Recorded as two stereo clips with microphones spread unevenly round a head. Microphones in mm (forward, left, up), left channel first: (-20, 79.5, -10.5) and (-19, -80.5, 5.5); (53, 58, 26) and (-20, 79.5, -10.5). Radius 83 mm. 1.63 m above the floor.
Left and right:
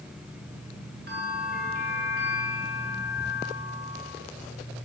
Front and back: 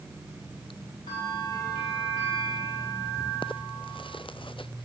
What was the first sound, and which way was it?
A bell, 50° right.